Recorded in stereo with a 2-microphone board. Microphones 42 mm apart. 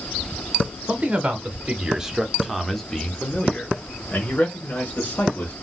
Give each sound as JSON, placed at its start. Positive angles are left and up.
{"t": 0.9, "sound": "a man speaking", "side_deg": -35, "distance_m": 1.2}